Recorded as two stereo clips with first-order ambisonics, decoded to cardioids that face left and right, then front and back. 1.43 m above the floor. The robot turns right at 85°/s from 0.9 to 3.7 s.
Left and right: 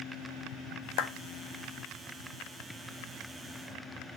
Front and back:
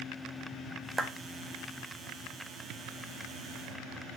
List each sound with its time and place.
1.0 s a clap: 100° left, 1.5 m; by 1.1 s 110° left, 1.5 m